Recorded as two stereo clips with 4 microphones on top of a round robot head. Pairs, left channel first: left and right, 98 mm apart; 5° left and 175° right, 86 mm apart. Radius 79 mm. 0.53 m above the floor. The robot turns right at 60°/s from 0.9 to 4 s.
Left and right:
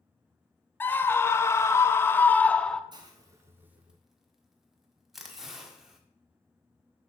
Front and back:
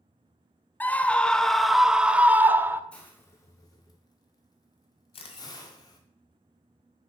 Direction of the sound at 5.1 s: Straight ahead.